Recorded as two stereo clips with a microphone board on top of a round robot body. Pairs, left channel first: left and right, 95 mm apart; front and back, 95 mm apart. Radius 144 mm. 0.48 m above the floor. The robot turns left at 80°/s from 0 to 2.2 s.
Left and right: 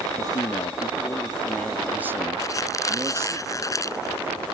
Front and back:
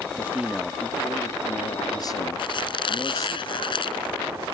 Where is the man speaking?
125° left; by 3.4 s 40° right.